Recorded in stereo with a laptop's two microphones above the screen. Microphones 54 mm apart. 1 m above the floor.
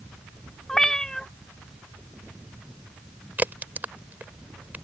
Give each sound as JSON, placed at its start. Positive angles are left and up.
{"t": 0.7, "sound": "a cat meowing", "side_deg": 10}
{"t": 3.4, "sound": "a crack", "side_deg": -30}